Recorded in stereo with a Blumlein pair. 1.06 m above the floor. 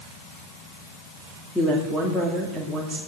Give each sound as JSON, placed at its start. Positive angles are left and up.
{"t": 1.6, "sound": "a woman speaking", "azimuth_deg": 5, "distance_m": 2.0}